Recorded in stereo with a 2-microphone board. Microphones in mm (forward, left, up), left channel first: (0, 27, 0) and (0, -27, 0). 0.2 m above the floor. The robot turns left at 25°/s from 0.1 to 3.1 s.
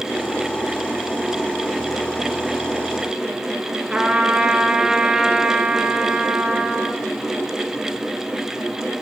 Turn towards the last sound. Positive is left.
turn(degrees=-15)  # may be behind; listen again after turning